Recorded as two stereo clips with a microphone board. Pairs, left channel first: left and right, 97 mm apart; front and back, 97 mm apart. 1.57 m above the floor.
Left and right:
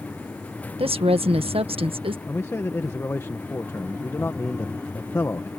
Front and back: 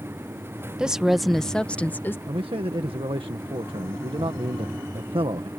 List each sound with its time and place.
0.8 s a woman speaking: 100° right; by 2.2 s 70° right
2.3 s a man speaking: 155° left